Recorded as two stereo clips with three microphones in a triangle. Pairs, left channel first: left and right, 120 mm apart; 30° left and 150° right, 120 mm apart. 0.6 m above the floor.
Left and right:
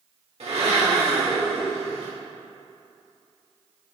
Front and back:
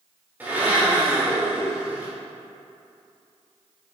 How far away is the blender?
About 1.7 m.